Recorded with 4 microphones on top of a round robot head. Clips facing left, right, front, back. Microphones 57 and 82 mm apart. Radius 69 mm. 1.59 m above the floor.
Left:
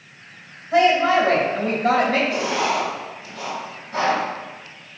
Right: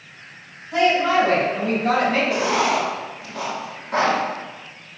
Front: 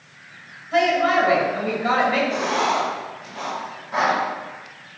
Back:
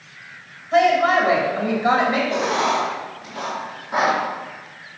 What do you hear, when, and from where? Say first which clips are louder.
0.7 s a woman speaking: left 2 dB, back 2 dB; 125° left, 3 m; by 2.2 s 115° left, 3 m
2.3 s writing: right 2 dB, back 1 dB; 115° right, 1.9 m